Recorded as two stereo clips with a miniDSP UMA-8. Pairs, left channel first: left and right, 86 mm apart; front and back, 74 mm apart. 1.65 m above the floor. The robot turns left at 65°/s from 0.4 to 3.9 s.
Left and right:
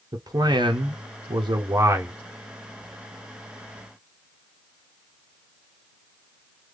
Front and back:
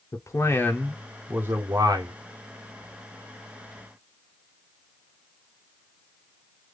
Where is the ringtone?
No ringtone in this recording.